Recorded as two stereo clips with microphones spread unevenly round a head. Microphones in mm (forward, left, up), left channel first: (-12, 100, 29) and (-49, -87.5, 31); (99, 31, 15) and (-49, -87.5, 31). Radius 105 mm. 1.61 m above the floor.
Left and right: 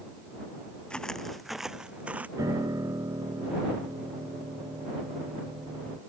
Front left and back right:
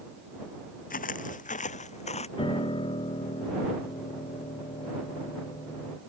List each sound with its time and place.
0.9 s footsteps: 10° right; by 2.3 s 20° right
2.4 s a piano: 25° right